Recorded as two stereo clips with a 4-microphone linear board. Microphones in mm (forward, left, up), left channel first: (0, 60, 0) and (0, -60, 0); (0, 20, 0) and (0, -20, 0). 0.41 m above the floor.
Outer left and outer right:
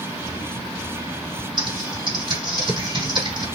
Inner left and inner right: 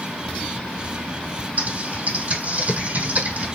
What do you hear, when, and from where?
1.6 s typing on a keyboard: 45° right (ahead or behind), 3 m